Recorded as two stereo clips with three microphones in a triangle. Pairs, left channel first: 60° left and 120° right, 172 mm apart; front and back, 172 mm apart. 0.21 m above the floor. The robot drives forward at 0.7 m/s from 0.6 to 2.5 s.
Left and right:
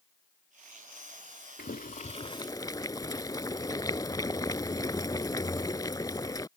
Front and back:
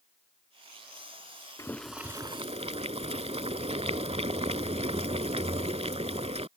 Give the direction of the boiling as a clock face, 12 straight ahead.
10 o'clock.